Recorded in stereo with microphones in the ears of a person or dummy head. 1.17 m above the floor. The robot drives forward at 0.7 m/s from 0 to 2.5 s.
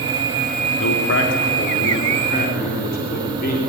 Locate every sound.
0.8 s a man speaking: 70° left (ahead or behind), 2.5 m; by 3.6 s 50° left (ahead or behind), 3 m